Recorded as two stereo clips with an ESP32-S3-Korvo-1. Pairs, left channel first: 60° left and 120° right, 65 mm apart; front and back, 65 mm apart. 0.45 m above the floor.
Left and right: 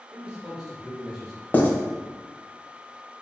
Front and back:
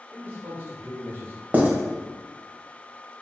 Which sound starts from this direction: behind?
A man speaking, at 0.1 s.